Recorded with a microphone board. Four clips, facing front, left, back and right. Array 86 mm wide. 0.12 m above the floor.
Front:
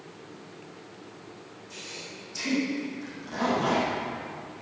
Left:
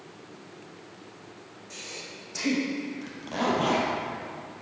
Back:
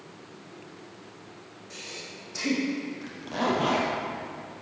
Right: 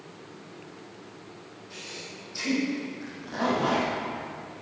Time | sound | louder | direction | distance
1.7 | breathing | even, back 1 dB | 125° left | 4 m
3.0 | a zipper | even, back 3 dB | 130° left | 3.5 m